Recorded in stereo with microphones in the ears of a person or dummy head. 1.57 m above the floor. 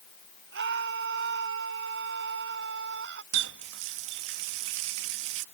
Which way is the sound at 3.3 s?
70° right (ahead or behind).